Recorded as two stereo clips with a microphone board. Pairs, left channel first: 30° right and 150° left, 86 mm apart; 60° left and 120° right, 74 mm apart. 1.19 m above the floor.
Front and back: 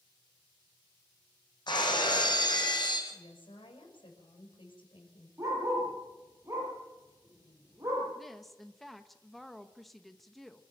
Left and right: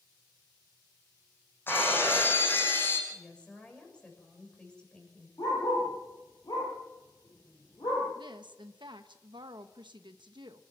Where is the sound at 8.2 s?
120° right, 0.9 m.